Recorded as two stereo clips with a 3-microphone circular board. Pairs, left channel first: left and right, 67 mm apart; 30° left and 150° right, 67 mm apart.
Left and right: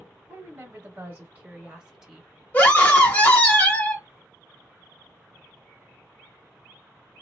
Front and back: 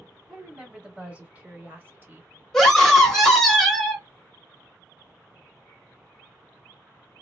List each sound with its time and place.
0.3 s a woman speaking: 75° right, 1.2 m; by 2.3 s 170° right, 1.1 m
2.5 s a scream: 105° left, 1.1 m